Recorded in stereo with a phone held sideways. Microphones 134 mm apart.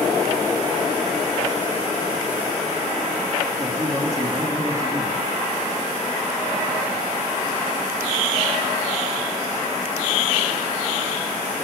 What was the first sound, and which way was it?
A man speaking, 20° right (ahead or behind).